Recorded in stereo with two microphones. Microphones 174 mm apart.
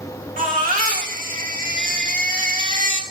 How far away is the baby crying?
About 2 m.